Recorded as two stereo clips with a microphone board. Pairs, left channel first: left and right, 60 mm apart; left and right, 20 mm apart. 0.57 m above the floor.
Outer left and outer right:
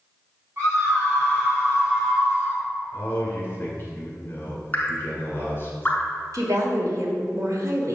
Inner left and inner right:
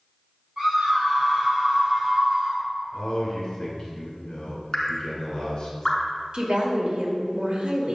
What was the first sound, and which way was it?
A scream, 40° right (ahead or behind).